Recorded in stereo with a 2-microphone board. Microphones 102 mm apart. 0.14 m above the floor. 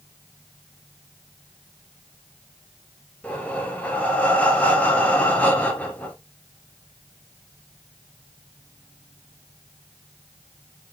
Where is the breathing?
15° left (ahead or behind), 2 m.